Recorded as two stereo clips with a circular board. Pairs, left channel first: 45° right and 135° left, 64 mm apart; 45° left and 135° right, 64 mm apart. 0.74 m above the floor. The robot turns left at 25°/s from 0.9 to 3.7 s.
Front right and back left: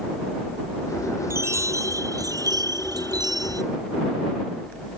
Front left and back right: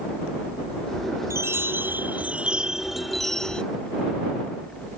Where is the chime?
Straight behind; by 3.6 s 125° left.